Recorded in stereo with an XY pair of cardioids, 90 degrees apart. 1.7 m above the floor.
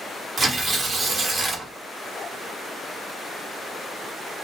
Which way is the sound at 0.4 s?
50° right.